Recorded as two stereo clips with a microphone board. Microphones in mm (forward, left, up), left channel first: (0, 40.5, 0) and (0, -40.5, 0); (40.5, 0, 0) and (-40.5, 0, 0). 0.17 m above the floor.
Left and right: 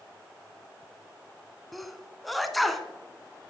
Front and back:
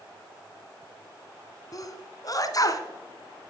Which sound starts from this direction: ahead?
A sneeze, at 1.7 s.